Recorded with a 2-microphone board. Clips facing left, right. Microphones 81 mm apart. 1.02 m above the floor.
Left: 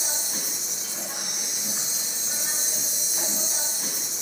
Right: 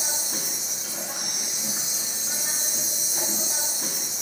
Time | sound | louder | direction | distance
0.0 | an insect | right 1 dB | 50° right (ahead or behind) | 1.3 m